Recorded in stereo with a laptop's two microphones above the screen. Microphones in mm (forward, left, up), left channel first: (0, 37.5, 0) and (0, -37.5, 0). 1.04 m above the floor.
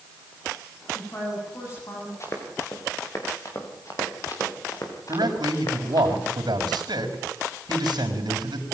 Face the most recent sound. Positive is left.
turn(degrees=-75)  # may be behind; listen again after turning